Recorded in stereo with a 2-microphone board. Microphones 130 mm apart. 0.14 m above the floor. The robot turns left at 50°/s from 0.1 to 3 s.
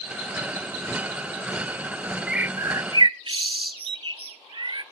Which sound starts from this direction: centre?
A bird, at 2.3 s.